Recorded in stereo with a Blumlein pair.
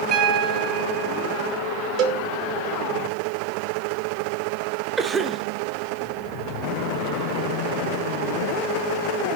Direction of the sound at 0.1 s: 25° right.